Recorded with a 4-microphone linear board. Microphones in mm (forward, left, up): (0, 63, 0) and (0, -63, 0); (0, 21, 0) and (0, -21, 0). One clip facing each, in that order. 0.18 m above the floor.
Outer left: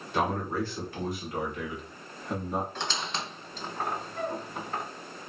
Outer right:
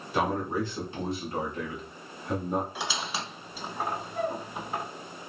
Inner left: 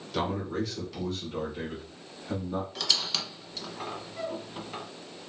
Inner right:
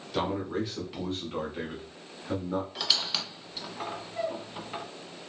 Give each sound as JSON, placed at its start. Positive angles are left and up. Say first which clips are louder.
{"t": 0.1, "sound": "a man speaking", "louder": "outer right 1 dB, even", "side_deg": 0, "distance_m": 1.1}
{"t": 2.8, "sound": "a squeak", "louder": "even, even", "side_deg": -5, "distance_m": 0.5}